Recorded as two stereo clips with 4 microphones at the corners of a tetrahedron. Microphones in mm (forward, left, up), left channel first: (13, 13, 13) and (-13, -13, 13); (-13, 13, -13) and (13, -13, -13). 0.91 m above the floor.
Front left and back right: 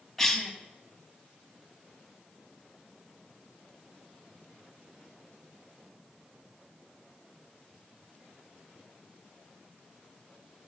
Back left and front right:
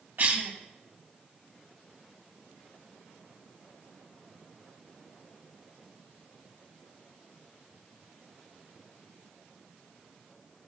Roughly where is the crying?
I don't hear crying.